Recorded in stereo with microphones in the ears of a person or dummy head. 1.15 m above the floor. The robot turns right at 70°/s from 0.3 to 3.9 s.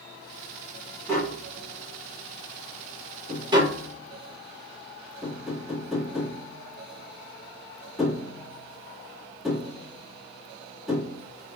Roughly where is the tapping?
Centre.